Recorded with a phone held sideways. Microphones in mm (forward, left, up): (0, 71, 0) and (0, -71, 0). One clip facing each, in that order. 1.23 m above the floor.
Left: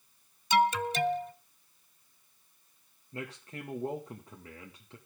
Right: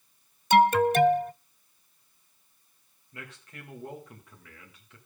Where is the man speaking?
35° left (ahead or behind), 1.6 m.